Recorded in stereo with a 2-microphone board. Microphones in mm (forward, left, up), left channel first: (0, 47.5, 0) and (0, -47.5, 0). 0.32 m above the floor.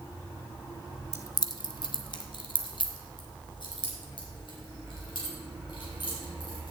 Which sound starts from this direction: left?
Keys jangling, at 1.1 s.